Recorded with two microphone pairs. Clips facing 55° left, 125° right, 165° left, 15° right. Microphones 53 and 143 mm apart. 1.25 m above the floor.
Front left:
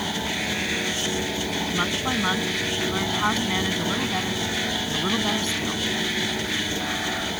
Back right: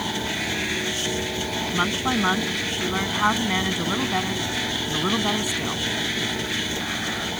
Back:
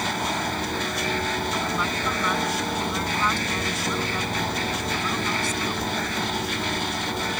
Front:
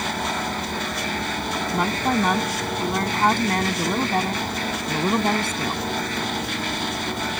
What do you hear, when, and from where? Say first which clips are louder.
1.7 s a woman speaking: back right 4 dB, front 5 dB; 50° right